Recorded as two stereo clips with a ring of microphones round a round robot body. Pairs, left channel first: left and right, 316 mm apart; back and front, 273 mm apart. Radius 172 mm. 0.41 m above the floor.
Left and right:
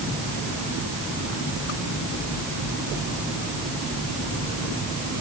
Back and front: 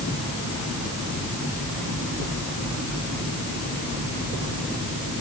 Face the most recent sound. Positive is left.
No sound to turn to.